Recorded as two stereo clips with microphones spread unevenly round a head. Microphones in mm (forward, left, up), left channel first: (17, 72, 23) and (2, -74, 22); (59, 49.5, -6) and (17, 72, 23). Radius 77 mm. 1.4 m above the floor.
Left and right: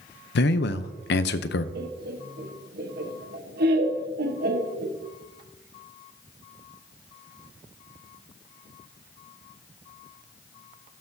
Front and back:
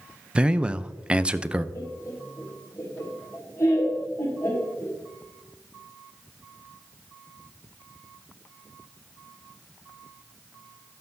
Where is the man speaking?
75° left, 0.6 m.